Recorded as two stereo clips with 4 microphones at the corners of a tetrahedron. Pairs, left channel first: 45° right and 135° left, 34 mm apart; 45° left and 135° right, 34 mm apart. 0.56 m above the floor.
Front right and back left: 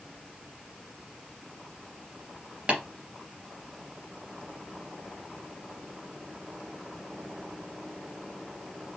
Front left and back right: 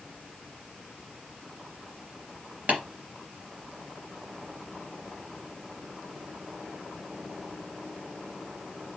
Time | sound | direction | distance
2.7 | tapping | 170° right | 2.5 m